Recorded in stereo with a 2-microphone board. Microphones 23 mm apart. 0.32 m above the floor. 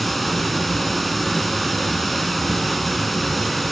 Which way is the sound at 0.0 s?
5° left (ahead or behind).